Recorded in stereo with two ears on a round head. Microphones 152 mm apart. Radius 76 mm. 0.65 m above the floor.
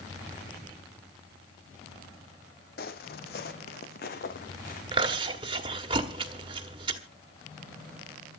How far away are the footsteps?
About 1.3 m.